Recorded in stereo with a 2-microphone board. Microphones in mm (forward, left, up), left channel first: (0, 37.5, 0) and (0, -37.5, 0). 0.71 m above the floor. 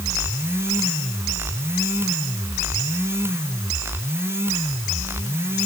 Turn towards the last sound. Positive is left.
No sound to turn to.